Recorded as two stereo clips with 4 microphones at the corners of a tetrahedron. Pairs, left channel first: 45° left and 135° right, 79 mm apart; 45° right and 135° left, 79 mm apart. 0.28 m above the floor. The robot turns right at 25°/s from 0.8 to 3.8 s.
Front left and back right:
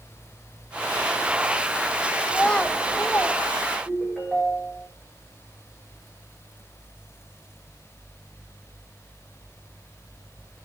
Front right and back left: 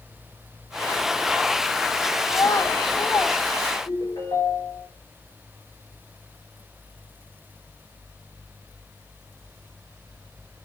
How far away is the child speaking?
About 0.7 m.